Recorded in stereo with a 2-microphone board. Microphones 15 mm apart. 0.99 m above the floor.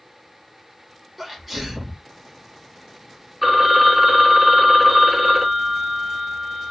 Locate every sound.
1.2 s a sneeze: centre (ahead or behind), 0.9 m
3.4 s a phone ringing: 10° right (ahead or behind), 0.9 m